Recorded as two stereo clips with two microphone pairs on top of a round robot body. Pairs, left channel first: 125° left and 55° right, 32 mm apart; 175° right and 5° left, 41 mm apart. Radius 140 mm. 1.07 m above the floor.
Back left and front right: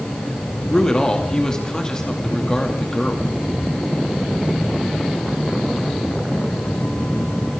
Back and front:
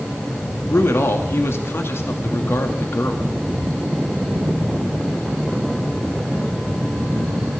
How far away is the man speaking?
About 2.5 m.